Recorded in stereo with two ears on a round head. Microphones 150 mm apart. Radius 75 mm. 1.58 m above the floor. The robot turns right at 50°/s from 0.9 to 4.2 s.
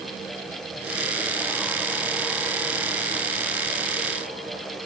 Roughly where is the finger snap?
I don't hear a finger snap.